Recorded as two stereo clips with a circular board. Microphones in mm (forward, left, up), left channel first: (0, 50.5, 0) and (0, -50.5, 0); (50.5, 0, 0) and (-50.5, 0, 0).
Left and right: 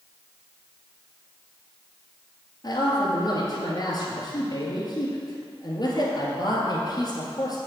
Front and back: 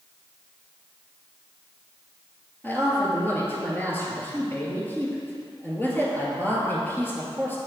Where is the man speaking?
65° left, 1.8 m.